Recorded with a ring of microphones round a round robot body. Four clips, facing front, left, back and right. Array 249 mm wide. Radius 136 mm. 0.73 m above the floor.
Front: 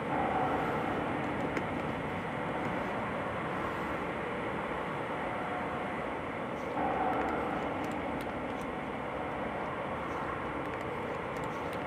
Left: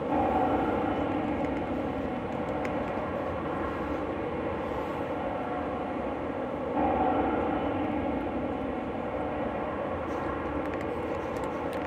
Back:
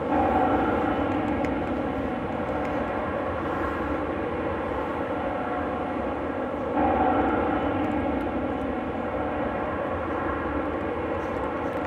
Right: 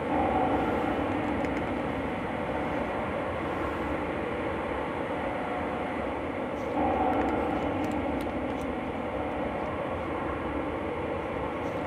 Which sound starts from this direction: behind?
An aircraft, at 0.0 s.